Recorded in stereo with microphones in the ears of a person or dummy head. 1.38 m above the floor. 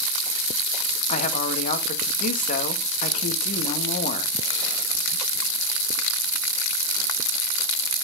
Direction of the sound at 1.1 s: 40° left (ahead or behind).